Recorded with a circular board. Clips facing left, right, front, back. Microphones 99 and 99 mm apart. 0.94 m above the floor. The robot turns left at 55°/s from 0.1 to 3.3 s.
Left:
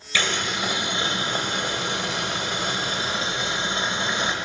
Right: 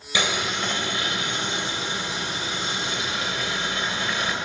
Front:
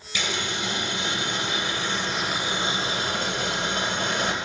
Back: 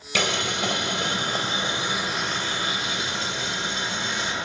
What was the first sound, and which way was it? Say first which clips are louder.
Boiling: even, back 4 dB; 160° right.